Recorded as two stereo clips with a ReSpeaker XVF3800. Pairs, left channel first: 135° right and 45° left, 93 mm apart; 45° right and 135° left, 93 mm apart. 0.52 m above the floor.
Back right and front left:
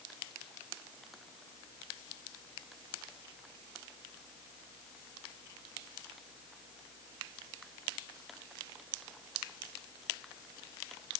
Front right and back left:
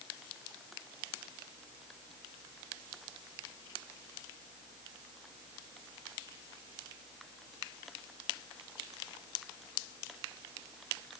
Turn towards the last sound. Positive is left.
No sound to turn to.